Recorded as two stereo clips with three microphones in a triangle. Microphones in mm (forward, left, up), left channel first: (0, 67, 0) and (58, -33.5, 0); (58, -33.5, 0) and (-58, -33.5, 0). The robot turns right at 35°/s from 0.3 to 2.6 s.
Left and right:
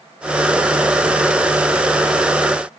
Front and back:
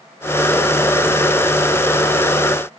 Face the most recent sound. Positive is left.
No sound to turn to.